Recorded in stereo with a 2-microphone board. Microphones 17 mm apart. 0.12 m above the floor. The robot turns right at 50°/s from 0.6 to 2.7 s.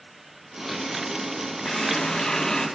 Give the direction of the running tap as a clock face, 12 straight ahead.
9 o'clock.